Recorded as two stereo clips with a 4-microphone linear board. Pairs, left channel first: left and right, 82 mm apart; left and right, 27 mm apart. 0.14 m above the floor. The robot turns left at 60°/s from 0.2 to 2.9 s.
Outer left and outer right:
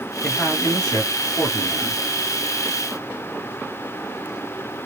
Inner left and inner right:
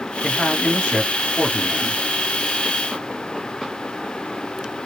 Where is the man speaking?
150° left, 1.8 m; by 2.0 s 45° left, 1.8 m.